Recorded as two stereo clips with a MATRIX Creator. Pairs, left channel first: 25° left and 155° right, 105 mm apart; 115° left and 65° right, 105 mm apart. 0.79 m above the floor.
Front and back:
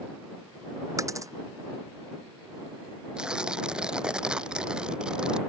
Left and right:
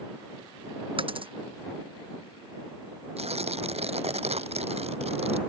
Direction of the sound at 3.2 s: 75° right.